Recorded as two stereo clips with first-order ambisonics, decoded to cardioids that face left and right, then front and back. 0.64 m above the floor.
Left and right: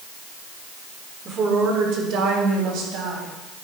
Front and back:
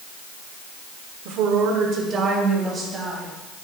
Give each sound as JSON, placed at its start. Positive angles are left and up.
{"t": 1.2, "sound": "a woman speaking", "azimuth_deg": -155, "distance_m": 1.4}